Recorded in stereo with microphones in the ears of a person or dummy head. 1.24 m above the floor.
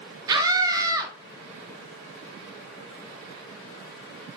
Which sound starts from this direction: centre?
A scream, at 0.3 s.